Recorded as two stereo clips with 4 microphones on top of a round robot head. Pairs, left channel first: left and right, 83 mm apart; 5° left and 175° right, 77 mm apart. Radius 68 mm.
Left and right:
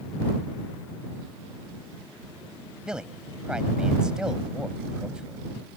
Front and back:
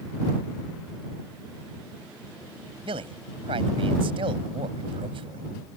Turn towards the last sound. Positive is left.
turn(degrees=-175)